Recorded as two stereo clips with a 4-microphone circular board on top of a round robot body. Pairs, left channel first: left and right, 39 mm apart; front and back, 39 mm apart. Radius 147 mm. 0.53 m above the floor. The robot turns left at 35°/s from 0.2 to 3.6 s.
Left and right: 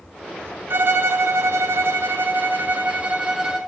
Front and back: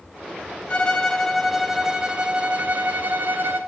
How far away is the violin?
About 0.7 m.